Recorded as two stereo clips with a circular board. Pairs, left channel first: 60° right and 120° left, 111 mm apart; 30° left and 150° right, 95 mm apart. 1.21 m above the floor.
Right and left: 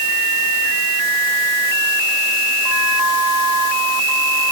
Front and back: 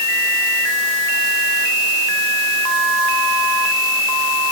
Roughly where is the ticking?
I don't hear ticking.